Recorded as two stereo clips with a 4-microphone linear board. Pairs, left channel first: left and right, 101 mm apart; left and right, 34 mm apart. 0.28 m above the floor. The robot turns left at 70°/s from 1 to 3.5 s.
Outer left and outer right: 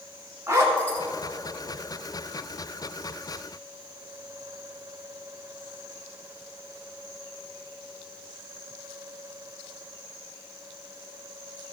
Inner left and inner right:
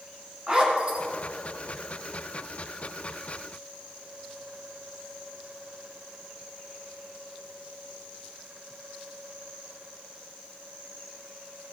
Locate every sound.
0.5 s a zipper: 30° right (ahead or behind), 2.0 m